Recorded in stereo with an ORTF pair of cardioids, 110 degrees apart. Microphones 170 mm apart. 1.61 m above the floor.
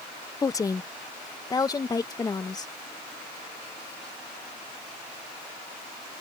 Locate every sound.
0.4 s a woman speaking: 20° left; by 2.7 s 25° left